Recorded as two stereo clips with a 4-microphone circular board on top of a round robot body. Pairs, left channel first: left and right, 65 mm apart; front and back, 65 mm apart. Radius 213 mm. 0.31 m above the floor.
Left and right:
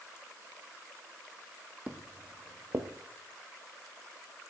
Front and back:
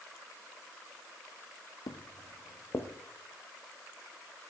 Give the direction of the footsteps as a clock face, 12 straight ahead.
1 o'clock.